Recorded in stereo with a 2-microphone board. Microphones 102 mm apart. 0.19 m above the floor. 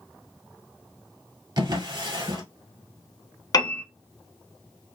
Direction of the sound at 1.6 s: 40° right (ahead or behind).